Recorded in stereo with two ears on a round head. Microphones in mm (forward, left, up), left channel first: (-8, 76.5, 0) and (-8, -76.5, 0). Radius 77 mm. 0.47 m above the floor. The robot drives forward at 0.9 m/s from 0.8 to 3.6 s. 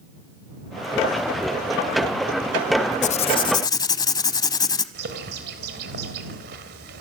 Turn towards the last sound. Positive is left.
turn(degrees=-65)  # may be behind; listen again after turning